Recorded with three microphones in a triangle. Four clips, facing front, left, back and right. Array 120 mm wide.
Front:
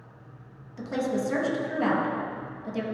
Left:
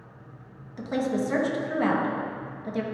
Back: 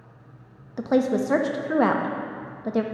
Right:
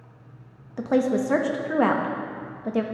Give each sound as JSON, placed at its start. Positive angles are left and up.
{"t": 0.8, "sound": "a woman speaking", "azimuth_deg": -145, "distance_m": 0.7}